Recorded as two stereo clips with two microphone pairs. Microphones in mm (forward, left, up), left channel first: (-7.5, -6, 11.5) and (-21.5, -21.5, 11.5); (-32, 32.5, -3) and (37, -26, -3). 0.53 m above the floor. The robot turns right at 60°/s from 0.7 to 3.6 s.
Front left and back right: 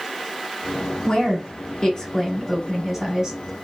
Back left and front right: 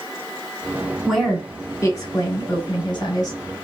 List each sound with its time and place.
1.1 s a woman speaking: 45° left, 1.9 m; by 3.4 s 175° right, 1.9 m